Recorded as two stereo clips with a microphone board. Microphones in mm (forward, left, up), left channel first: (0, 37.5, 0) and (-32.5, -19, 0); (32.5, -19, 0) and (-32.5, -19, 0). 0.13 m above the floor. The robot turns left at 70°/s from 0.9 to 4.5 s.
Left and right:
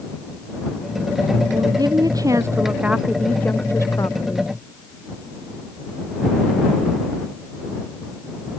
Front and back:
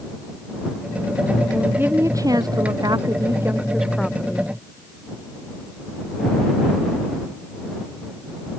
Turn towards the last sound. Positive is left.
turn(degrees=50)